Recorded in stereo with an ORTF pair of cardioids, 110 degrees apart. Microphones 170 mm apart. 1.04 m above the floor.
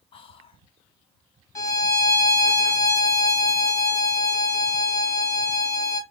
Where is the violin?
20° left, 1.3 m.